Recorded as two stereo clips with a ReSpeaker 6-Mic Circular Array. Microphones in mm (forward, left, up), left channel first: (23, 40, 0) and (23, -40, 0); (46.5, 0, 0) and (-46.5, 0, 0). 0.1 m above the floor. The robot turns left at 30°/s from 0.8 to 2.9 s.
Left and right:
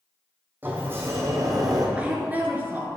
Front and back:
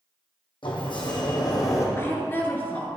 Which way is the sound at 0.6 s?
25° right.